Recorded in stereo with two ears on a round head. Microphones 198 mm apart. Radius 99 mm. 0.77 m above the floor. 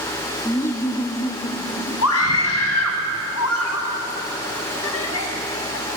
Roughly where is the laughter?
Centre.